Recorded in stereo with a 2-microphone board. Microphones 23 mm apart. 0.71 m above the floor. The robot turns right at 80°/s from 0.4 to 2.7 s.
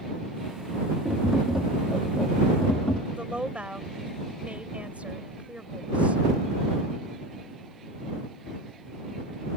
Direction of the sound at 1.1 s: 70° right.